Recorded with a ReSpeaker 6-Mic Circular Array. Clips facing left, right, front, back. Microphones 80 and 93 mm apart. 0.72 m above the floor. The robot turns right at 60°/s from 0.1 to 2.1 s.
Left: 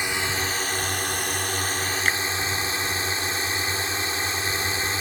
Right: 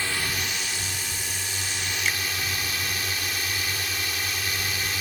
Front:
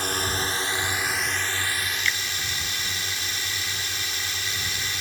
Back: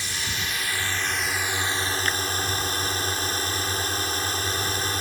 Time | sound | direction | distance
0.0 | a drone | 25° left | ?
2.0 | a finger snap | 130° left | ?